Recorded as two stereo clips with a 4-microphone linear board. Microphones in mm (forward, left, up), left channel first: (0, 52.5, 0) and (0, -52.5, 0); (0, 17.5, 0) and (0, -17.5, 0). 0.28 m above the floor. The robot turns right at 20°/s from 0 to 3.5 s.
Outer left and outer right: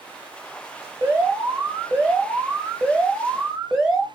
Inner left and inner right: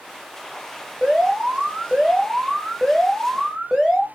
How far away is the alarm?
About 1.4 m.